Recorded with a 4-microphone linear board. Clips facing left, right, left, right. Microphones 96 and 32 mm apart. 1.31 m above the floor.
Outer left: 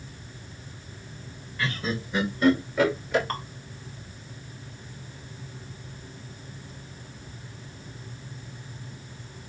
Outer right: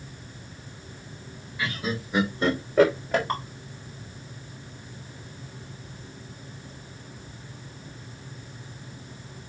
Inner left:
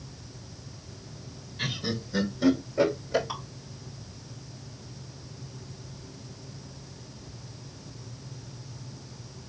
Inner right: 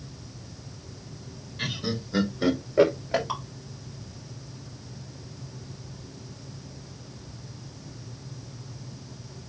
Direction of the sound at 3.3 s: 20° right (ahead or behind).